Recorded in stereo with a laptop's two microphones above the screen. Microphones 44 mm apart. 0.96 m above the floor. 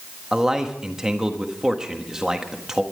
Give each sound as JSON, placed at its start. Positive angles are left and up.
{"t": 0.3, "sound": "a man speaking", "side_deg": -15, "distance_m": 1.4}